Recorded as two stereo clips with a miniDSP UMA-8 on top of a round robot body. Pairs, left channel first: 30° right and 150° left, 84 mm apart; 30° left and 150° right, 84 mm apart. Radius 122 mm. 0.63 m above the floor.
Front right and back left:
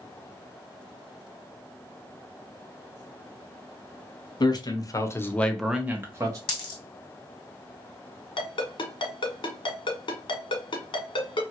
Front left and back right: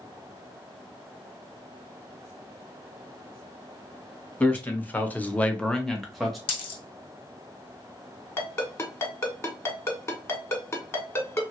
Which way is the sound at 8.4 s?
25° right.